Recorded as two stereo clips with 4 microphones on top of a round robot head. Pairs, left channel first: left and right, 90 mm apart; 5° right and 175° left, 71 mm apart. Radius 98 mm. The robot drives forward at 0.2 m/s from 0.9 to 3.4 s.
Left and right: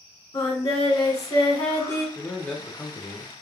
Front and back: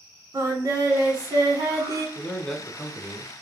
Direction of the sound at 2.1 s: 40° left.